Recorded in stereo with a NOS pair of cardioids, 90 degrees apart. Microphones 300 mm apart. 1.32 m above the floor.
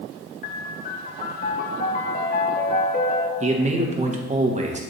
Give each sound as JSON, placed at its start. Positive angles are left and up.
{"t": 0.4, "sound": "a piano", "azimuth_deg": 30, "distance_m": 0.8}
{"t": 3.4, "sound": "a man speaking", "azimuth_deg": -25, "distance_m": 1.4}